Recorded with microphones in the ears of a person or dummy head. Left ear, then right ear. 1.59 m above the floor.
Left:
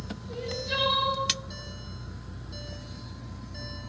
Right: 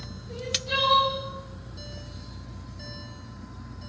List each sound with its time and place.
0.3 s crying: centre (ahead or behind), 5.5 m